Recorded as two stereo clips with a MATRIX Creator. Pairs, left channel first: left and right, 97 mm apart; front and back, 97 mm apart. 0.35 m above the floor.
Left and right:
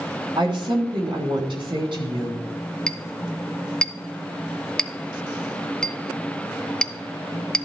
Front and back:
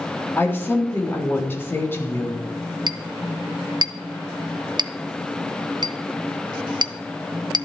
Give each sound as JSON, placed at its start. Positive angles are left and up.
{"t": 0.4, "sound": "a woman speaking", "azimuth_deg": -65, "distance_m": 3.5}
{"t": 2.9, "sound": "a clink", "azimuth_deg": 170, "distance_m": 0.6}